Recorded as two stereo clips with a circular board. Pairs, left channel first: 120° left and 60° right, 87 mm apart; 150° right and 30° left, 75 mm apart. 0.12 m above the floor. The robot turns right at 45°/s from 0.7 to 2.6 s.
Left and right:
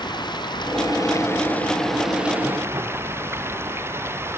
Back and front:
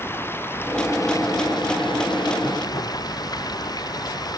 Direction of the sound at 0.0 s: 150° left.